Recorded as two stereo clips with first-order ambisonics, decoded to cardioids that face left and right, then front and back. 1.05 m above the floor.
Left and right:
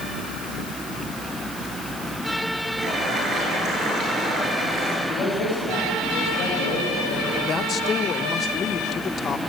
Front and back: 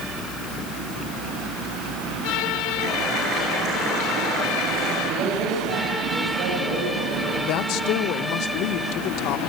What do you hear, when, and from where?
2.8 s boiling: 145° right, 9 m
5.1 s a man speaking: 150° left, 5.5 m
7.4 s a woman speaking: 30° left, 0.9 m